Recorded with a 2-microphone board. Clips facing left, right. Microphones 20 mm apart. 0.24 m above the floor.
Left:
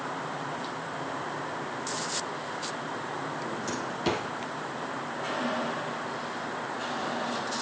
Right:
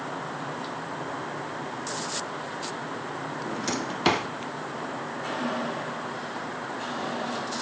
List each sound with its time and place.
3.5 s a drawer: 40° right (ahead or behind), 1.2 m